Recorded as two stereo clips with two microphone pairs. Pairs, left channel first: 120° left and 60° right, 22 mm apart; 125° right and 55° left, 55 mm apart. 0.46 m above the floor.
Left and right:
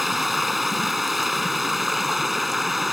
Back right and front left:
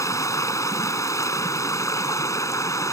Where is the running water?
140° right.